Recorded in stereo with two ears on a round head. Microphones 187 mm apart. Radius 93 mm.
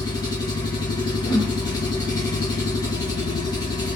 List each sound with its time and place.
0.0 s an engine running: 20° left (ahead or behind), 2.0 m
1.2 s a whoosh: 30° left (ahead or behind), 1.0 m